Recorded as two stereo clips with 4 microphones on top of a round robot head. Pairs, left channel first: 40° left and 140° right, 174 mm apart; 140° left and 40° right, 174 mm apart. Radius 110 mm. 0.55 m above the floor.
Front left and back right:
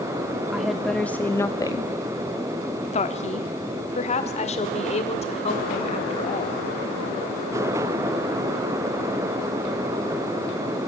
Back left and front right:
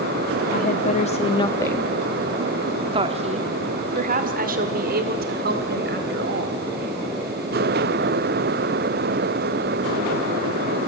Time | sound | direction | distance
0.5 | a woman speaking | 135° left | 1.2 m